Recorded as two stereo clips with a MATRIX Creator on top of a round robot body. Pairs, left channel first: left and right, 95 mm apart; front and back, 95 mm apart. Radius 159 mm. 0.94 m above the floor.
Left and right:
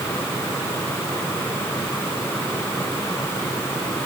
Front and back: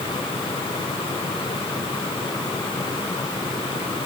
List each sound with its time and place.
Only background noise.